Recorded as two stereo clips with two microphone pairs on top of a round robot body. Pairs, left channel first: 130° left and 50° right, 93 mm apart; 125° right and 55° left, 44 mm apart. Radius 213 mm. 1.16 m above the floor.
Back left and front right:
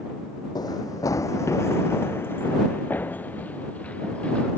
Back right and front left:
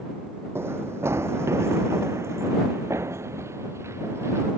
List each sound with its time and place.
0.6 s running footsteps: 80° left; by 4.5 s 50° left